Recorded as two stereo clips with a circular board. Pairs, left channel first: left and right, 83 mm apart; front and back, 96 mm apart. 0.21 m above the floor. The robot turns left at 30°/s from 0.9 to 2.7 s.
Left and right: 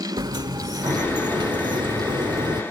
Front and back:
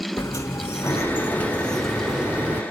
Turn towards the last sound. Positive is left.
turn(degrees=-110)